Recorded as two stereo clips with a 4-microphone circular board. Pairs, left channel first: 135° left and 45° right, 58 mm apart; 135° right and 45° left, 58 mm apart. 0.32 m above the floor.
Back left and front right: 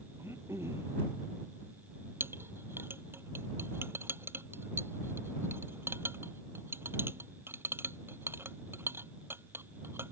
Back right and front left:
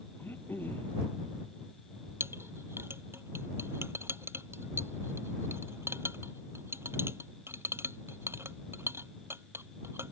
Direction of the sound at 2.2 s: Straight ahead.